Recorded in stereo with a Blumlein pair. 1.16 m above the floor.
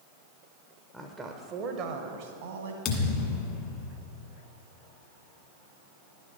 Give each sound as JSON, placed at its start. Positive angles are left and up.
{"t": 0.9, "sound": "a woman speaking", "azimuth_deg": 0, "distance_m": 0.7}
{"t": 2.9, "sound": "a thud", "azimuth_deg": 35, "distance_m": 1.5}